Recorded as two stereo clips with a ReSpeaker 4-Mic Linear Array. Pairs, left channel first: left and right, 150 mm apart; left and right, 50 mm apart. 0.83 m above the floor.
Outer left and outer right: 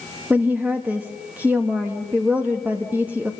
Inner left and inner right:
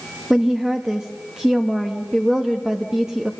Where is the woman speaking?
10° right (ahead or behind), 1.4 m.